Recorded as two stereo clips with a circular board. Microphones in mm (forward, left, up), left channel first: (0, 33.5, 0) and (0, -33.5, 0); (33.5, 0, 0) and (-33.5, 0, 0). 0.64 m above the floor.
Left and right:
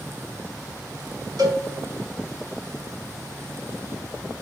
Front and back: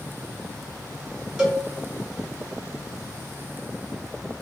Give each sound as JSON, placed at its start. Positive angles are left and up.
{"t": 1.4, "sound": "a cowbell", "azimuth_deg": -100, "distance_m": 0.9}